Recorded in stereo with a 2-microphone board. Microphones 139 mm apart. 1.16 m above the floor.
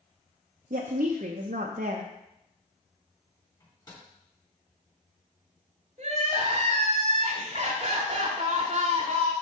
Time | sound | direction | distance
0.7 | a woman speaking | 80° right | 0.6 m
3.6 | a microwave | 30° left (ahead or behind) | 3.5 m
6.0 | crying | 50° right (ahead or behind) | 1.2 m